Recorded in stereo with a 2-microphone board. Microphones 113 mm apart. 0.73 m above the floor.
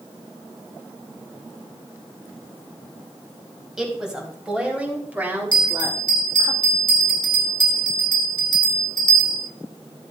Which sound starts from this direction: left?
A bell, at 5.5 s.